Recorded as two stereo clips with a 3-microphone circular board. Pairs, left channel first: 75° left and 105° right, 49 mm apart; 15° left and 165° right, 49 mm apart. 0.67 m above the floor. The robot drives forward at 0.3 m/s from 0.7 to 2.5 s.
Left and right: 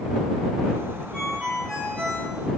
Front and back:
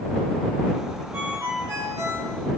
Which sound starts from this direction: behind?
A ringtone, at 1.1 s.